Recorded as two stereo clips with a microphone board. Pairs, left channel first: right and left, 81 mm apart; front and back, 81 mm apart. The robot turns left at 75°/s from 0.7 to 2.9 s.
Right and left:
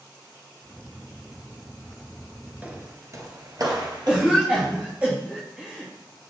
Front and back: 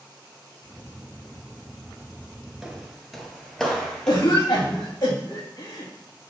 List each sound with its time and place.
2.6 s footsteps: 120° left, 1.3 m; by 5.1 s 85° left, 3 m
4.1 s a cough: 20° left, 2.5 m